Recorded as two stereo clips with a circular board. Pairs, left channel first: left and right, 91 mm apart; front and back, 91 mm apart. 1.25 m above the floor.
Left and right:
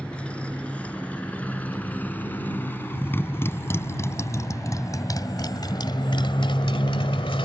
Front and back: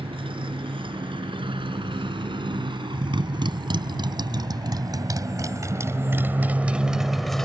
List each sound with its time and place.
0.0 s a motorcycle: 165° left; by 7.5 s 85° left